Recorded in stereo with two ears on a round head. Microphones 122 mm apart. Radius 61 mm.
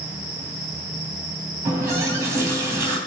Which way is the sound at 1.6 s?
20° right (ahead or behind).